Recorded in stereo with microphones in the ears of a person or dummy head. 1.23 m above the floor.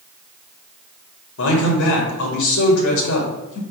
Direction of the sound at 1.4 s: 70° left (ahead or behind).